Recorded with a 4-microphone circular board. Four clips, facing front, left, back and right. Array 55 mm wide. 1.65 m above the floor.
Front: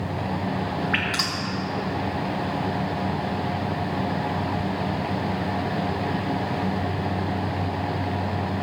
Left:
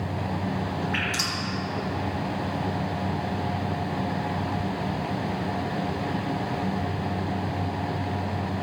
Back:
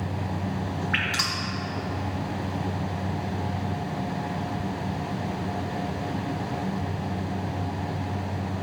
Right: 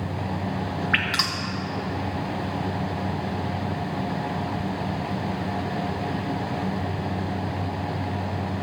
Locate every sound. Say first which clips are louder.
0.9 s dripping: right 3 dB, front 2 dB; 85° right, 1.6 m